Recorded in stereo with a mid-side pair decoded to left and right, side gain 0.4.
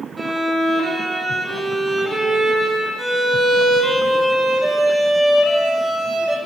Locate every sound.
0.2 s a violin: 20° right, 1.4 m